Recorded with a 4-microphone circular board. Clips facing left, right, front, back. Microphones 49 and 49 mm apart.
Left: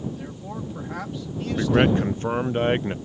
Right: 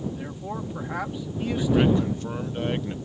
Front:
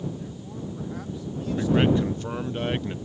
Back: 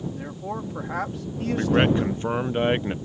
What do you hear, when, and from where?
0.1 s a man speaking: 165° right
1.6 s a man speaking: 125° left